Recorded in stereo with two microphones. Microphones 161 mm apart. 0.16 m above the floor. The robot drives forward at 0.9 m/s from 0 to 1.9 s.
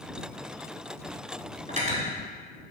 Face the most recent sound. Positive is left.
turn(degrees=-50)  # may be behind; listen again after turning